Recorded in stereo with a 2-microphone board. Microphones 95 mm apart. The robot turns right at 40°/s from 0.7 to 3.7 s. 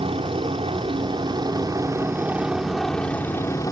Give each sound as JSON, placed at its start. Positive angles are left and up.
{"t": 0.0, "sound": "a helicopter", "azimuth_deg": -85}